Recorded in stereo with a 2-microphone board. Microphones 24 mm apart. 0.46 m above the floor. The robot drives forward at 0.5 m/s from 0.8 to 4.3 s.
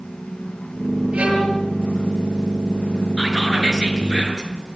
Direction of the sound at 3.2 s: 15° left (ahead or behind).